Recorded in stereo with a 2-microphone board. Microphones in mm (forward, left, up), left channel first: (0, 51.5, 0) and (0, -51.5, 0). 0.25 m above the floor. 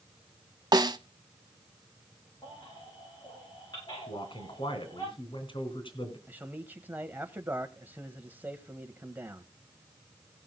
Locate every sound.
0.7 s a snare drum: 45° right (ahead or behind), 0.7 m
2.4 s a baby crying: 50° left (ahead or behind), 9.5 m
4.1 s a man speaking: 60° left (ahead or behind), 2.5 m
6.3 s a man speaking: 20° right (ahead or behind), 1.0 m